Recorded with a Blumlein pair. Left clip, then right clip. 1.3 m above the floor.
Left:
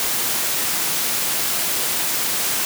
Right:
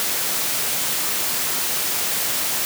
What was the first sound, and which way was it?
Only background noise.